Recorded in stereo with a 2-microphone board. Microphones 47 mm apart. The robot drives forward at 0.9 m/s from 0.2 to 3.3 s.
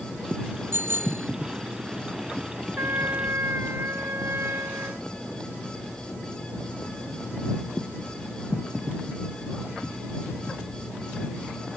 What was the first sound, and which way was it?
A bicycle bell, 55° right (ahead or behind).